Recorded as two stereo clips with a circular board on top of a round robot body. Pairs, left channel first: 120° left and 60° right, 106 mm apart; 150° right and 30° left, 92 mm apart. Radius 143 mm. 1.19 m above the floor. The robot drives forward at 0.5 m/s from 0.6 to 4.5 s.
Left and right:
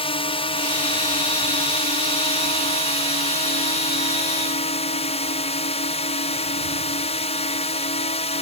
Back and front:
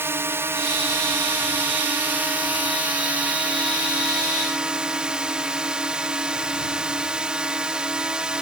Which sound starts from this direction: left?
A drone, at 0.0 s.